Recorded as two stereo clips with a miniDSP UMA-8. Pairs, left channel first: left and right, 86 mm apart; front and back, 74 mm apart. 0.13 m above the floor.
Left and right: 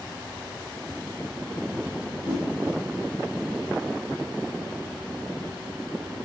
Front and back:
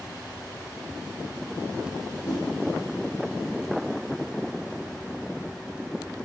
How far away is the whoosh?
About 3 m.